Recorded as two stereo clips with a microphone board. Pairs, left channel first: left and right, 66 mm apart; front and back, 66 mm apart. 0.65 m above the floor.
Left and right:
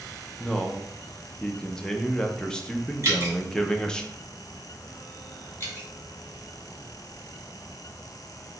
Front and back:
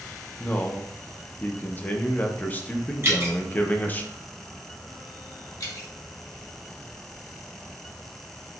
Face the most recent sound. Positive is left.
turn(degrees=35)